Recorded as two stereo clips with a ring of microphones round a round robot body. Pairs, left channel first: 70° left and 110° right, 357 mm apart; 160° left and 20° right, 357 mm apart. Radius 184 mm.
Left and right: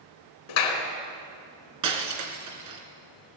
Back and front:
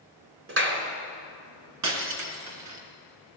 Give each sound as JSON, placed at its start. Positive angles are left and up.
{"t": 0.5, "sound": "a clap", "azimuth_deg": 35, "distance_m": 3.5}
{"t": 1.8, "sound": "breaking glass", "azimuth_deg": -70, "distance_m": 3.0}